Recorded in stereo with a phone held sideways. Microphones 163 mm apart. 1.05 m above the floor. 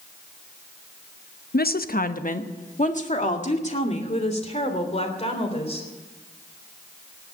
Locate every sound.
1.5 s a woman speaking: 70° left (ahead or behind), 0.7 m; by 5.9 s 40° left (ahead or behind), 4 m